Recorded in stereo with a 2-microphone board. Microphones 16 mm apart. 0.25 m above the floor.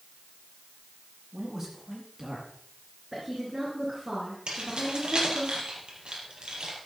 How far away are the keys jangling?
About 4.5 m.